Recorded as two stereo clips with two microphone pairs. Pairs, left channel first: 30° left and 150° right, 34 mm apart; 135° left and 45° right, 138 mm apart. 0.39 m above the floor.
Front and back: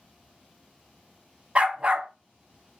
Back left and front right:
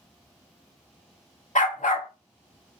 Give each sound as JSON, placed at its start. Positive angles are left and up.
{"t": 1.6, "sound": "a dog barking", "azimuth_deg": 155, "distance_m": 0.5}